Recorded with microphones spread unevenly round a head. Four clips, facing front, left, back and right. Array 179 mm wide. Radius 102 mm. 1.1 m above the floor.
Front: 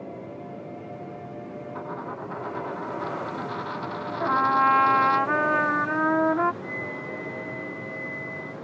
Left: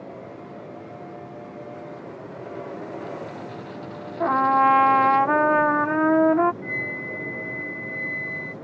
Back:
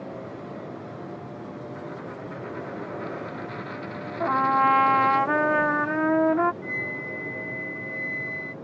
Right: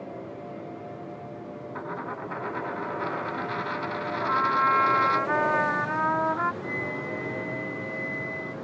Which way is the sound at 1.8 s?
65° right.